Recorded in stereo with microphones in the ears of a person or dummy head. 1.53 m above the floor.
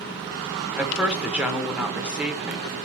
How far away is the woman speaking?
About 0.9 m.